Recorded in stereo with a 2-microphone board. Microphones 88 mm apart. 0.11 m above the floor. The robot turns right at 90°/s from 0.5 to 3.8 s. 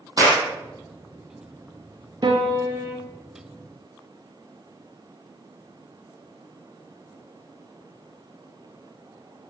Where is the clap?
40° right (ahead or behind), 4 m.